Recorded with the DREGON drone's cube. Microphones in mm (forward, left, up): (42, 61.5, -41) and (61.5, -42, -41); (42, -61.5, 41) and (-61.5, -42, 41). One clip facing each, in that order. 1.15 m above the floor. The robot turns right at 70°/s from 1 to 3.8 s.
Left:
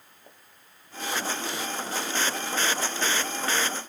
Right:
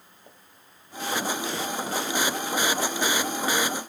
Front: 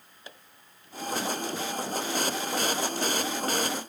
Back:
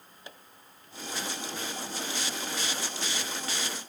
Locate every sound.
Only background noise.